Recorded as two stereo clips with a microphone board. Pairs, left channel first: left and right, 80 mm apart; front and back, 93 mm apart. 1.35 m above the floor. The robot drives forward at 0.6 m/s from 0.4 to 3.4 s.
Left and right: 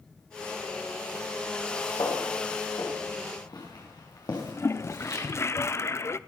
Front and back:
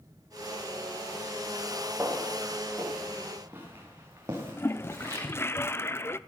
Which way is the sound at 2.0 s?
105° left.